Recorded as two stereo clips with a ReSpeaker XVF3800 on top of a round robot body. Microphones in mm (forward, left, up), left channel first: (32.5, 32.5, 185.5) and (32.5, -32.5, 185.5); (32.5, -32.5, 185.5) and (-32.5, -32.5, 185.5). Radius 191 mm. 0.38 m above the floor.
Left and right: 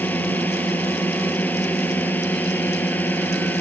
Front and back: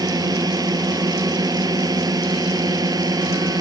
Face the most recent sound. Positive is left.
turn(degrees=155)